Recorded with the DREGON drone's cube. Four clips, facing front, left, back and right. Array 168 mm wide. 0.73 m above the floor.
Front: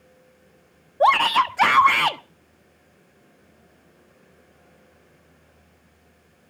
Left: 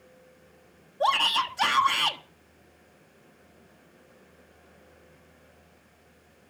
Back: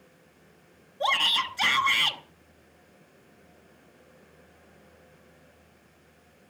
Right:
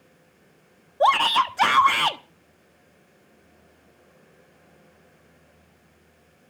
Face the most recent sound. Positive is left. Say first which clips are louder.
# right 6 dB, front 11 dB
turn(degrees=-30)